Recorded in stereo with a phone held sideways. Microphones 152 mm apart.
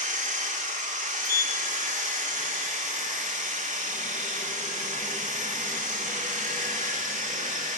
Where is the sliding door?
75° left (ahead or behind), 2.5 m.